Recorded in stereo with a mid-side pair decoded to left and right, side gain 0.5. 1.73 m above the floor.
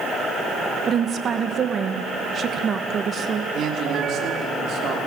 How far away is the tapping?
I don't hear tapping.